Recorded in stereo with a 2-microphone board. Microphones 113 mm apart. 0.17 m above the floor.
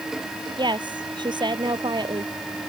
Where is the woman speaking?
40° right (ahead or behind).